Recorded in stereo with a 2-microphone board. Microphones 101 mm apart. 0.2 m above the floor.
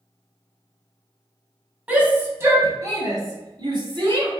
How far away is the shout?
About 1.2 m.